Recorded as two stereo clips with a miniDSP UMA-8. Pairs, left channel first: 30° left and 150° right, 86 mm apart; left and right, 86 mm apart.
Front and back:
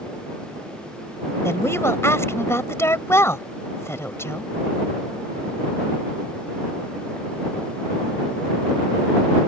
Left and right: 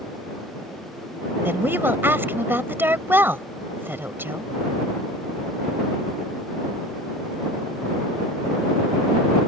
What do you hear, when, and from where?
1.4 s a woman speaking: 25° right